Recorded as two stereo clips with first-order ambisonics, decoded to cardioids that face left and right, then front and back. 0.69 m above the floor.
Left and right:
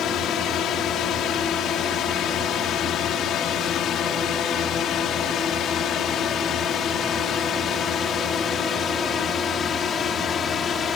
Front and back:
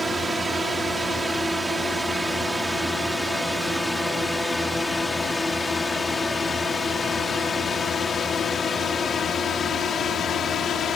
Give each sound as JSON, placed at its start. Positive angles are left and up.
{"t": 0.0, "sound": "a drone", "azimuth_deg": 105}